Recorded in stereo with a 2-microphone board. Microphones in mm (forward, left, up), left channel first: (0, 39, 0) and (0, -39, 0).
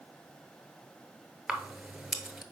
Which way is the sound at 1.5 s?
5° right (ahead or behind).